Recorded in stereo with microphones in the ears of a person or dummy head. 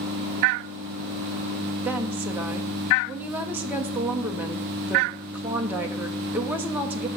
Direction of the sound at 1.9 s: 10° right (ahead or behind).